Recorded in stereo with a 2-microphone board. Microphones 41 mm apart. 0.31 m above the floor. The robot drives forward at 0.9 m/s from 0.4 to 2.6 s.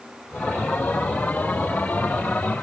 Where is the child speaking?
I don't hear a child speaking.